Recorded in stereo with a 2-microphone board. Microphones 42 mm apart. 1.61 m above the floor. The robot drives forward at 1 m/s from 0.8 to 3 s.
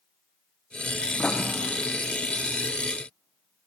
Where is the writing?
35° left (ahead or behind), 0.5 m; by 1.4 s 25° left (ahead or behind), 0.7 m.